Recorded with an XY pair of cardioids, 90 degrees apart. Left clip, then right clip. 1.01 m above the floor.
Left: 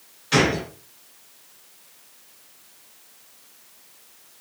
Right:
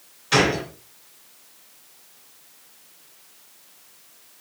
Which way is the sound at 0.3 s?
30° right.